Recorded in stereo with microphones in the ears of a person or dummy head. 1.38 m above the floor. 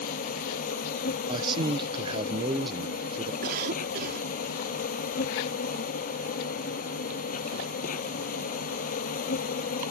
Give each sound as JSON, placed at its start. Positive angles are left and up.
{"t": 0.0, "sound": "an insect", "side_deg": 45}
{"t": 1.3, "sound": "a man speaking", "side_deg": -30}
{"t": 3.4, "sound": "a cough", "side_deg": -50}